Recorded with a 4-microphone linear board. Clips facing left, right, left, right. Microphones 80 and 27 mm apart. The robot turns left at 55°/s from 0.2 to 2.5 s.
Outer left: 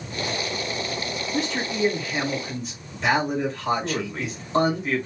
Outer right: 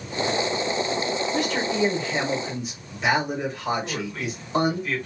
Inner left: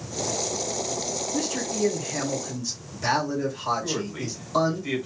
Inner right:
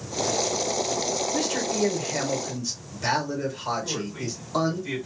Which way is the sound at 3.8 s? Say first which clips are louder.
Outer left 2 dB, inner left 1 dB; 25° left (ahead or behind).